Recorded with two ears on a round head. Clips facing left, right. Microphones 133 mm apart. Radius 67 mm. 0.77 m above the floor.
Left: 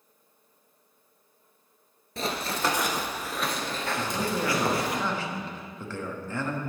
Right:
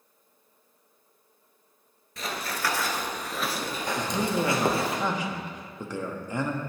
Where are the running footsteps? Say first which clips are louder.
Left 3 dB; 30° left (ahead or behind), 0.9 m; by 5.0 s 25° right (ahead or behind), 1.4 m.